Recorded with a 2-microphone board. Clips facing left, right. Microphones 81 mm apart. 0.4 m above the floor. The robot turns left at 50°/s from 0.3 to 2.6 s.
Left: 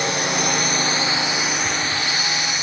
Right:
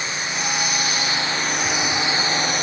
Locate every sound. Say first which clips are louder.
0.0 s a drone: left 5 dB; 65° left; by 2.6 s 50° right